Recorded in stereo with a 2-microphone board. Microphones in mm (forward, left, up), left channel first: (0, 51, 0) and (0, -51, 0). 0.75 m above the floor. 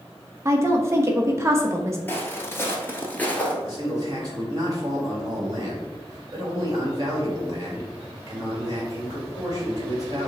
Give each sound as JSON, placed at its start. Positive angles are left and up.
{"t": 0.5, "sound": "a woman speaking", "side_deg": -25, "distance_m": 0.6}
{"t": 2.1, "sound": "footsteps", "side_deg": 20, "distance_m": 1.0}
{"t": 3.6, "sound": "a man speaking", "side_deg": -40, "distance_m": 1.6}